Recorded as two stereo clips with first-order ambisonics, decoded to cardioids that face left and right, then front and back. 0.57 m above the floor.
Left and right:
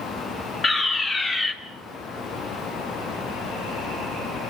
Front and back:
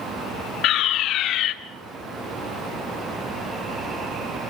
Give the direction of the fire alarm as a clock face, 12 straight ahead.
11 o'clock.